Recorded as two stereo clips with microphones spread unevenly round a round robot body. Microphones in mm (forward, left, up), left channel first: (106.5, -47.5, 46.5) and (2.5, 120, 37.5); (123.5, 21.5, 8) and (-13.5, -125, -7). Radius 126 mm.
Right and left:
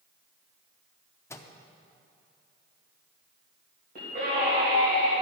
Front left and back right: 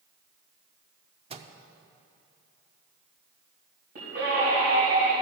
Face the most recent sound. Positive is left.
turn(degrees=170)